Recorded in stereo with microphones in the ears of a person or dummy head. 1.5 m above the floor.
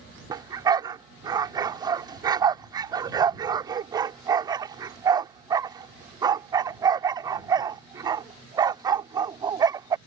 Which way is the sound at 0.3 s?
30° right (ahead or behind).